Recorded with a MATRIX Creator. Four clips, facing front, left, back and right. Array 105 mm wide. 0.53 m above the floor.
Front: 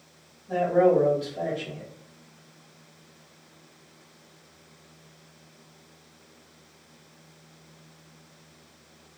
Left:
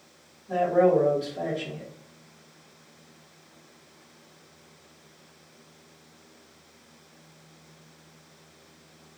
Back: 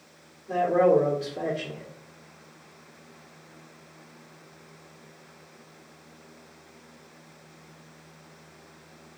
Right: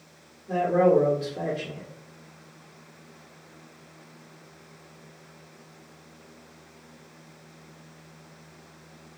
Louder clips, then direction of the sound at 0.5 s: Even, even; 140° right.